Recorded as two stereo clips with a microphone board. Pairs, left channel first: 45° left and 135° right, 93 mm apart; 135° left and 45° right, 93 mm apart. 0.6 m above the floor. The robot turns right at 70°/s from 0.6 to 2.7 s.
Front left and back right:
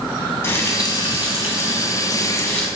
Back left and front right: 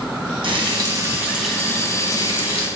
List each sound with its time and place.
0.4 s frying: 20° right, 1.8 m; by 2.7 s 125° left, 1.8 m